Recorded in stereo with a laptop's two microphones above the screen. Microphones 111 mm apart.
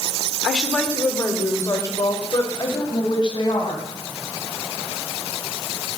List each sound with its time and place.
0.4 s a woman speaking: centre (ahead or behind), 2.5 m; by 3.8 s 45° left (ahead or behind), 6 m